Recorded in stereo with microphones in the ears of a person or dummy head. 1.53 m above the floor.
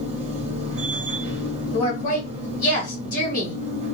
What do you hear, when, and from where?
0.0 s a machine running: 35° right (ahead or behind), 0.9 m
1.7 s a woman speaking: 50° left (ahead or behind), 1.6 m